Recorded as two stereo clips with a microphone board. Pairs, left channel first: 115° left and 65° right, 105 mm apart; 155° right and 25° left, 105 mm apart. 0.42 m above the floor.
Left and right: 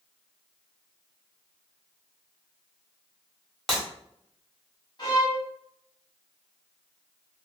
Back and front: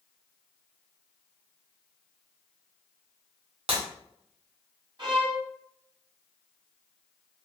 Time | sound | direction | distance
3.7 | breaking glass | 25° left | 1.4 m
5.0 | a violin | 65° left | 1.5 m